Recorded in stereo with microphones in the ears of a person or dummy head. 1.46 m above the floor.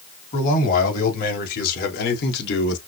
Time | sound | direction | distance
0.3 | a man speaking | 45° left (ahead or behind) | 2.5 m